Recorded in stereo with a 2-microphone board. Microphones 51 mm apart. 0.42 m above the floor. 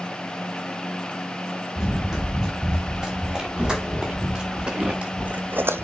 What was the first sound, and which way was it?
Running footsteps, 10° right (ahead or behind).